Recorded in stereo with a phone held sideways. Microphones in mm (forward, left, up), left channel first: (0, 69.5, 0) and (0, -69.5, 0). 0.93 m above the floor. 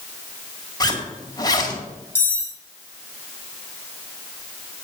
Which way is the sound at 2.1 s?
15° left (ahead or behind).